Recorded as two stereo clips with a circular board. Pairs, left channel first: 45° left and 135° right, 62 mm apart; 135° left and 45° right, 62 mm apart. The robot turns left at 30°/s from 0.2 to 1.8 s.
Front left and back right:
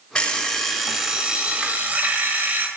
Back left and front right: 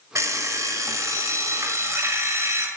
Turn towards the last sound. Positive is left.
turn(degrees=-75)